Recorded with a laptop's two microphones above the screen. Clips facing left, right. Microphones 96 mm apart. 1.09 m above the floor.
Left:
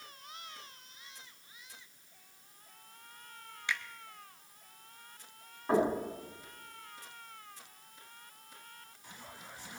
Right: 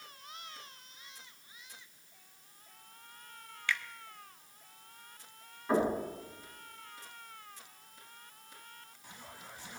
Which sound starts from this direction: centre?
A finger snap, at 3.7 s.